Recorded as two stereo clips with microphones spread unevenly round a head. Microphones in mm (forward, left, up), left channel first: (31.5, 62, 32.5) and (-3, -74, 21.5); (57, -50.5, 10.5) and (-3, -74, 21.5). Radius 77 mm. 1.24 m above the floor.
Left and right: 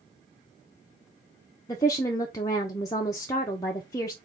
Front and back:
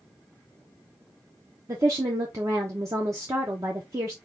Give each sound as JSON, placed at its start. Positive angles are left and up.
{"t": 1.7, "sound": "a woman speaking", "azimuth_deg": 145, "distance_m": 0.6}